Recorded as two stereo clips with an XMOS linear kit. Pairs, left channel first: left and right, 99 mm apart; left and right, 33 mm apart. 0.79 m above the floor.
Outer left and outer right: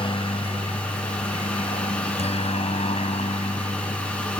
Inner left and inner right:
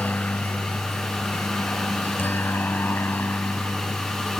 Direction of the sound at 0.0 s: 60° left (ahead or behind).